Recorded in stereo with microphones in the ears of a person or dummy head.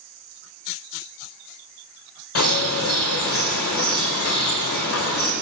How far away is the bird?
About 1.4 m.